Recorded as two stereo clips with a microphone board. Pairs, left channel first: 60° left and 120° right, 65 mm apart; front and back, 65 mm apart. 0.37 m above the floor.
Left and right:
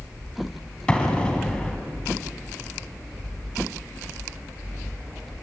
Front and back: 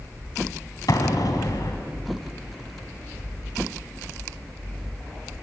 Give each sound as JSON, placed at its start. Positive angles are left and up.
{"t": 0.9, "sound": "an explosion", "azimuth_deg": -15, "distance_m": 3.0}